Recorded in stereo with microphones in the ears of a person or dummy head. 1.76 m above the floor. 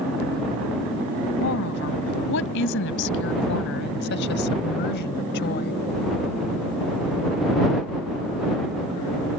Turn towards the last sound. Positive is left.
turn(degrees=65)  # may be behind; listen again after turning